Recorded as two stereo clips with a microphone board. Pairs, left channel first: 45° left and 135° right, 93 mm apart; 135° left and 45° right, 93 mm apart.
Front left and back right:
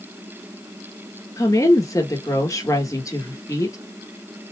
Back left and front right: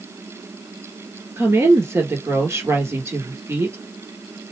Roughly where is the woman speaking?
Ahead.